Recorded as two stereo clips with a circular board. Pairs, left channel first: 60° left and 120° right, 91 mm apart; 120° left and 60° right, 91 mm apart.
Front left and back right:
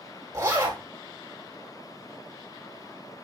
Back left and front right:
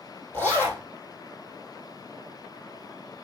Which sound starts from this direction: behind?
A zipper, at 0.3 s.